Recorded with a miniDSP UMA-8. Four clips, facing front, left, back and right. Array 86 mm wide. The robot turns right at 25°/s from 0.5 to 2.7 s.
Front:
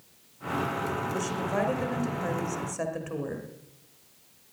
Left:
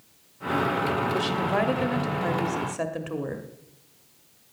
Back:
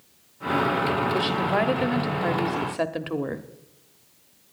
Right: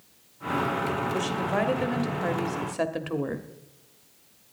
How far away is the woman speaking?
About 0.9 m.